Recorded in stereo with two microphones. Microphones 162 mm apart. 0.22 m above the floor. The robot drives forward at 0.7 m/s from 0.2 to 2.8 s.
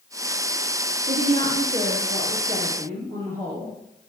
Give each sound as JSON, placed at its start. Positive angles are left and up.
{"t": 1.1, "sound": "a woman speaking", "side_deg": -50, "distance_m": 3.5}